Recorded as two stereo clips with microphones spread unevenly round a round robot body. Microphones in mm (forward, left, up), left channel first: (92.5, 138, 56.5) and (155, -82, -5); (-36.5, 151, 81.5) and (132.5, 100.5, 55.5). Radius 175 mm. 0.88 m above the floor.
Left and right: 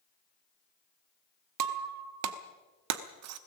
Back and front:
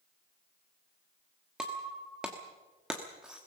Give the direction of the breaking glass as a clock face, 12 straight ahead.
3 o'clock.